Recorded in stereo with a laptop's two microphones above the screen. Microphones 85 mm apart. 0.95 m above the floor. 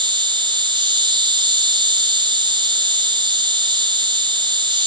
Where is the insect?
75° right (ahead or behind).